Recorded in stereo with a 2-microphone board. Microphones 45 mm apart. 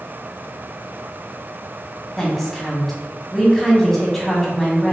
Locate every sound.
2.2 s a woman speaking: 10° left (ahead or behind), 1.4 m